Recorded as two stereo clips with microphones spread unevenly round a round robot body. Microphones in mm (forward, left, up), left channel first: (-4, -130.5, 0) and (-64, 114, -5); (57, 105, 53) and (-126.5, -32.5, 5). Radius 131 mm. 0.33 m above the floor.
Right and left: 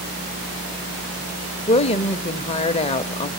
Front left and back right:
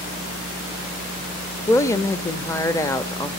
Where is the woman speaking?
50° right, 0.8 m.